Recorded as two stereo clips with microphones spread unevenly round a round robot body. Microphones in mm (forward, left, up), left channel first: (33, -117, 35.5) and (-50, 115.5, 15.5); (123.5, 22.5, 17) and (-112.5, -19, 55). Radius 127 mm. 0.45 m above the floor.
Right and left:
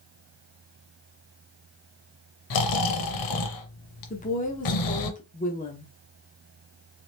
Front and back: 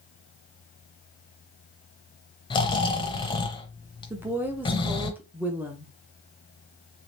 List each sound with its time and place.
2.5 s snoring: 65° right, 0.7 m
4.1 s a woman speaking: 75° right, 0.8 m